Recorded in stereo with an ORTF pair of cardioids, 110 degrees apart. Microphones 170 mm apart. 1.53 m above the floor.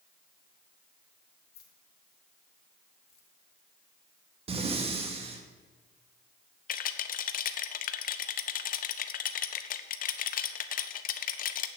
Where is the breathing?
35° right, 1.7 m.